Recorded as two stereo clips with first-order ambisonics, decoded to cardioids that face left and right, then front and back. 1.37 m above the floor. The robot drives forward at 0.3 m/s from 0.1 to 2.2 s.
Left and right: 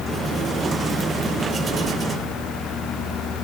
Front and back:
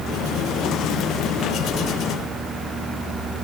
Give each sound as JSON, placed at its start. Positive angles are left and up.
{"t": 1.7, "sound": "keys jangling", "azimuth_deg": -105, "distance_m": 0.8}